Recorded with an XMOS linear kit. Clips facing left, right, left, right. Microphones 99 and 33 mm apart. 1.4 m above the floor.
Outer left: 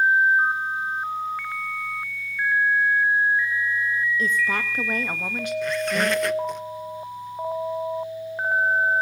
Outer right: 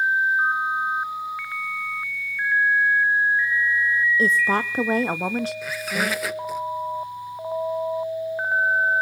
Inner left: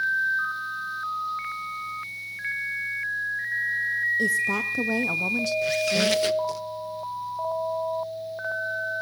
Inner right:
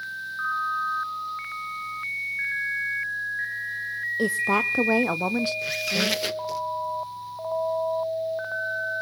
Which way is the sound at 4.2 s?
35° right (ahead or behind).